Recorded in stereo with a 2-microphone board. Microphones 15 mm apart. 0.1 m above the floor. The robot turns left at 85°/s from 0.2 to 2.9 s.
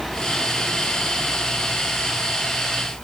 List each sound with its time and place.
Only background noise.